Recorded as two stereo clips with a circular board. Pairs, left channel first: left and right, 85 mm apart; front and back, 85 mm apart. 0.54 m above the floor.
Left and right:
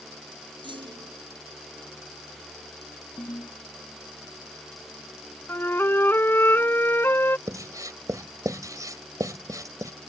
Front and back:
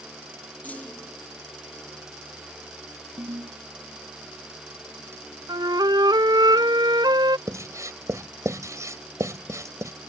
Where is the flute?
150° left.